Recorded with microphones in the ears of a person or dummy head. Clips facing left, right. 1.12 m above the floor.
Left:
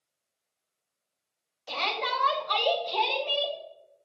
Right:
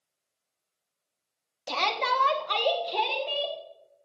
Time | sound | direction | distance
1.7 | a shout | 65° right (ahead or behind) | 1.6 m